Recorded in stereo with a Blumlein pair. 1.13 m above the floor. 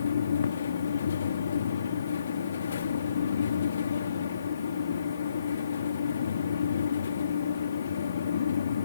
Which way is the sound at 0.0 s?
70° left.